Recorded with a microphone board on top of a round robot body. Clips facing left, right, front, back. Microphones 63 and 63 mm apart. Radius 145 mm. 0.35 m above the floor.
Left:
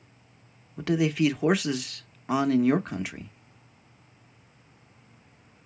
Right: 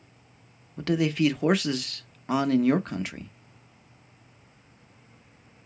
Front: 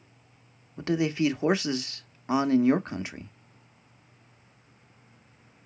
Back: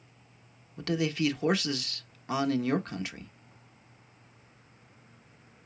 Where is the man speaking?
10° left, 0.9 m.